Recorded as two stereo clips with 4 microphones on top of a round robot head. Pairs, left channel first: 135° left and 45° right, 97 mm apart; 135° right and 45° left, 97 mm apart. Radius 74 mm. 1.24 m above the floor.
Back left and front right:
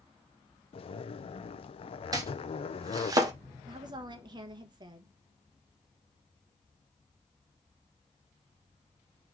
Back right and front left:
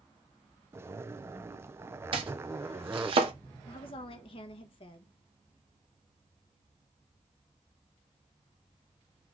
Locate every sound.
0.7 s a zipper: 110° left, 0.5 m
2.1 s chopping: 10° left, 1.0 m
3.7 s a woman speaking: 95° right, 1.0 m